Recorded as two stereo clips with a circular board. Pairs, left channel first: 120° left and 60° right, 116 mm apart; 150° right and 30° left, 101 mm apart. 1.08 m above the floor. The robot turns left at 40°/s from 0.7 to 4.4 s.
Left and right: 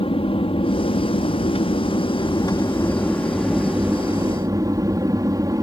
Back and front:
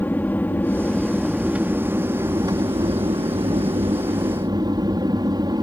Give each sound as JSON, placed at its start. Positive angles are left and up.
{"t": 0.0, "sound": "an aircraft", "azimuth_deg": 140}